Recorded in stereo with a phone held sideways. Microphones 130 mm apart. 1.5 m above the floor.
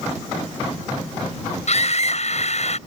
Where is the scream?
55° left (ahead or behind).